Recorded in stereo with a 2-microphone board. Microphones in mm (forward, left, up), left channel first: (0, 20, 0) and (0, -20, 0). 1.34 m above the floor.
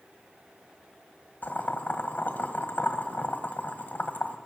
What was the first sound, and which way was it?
Boiling, 45° left (ahead or behind).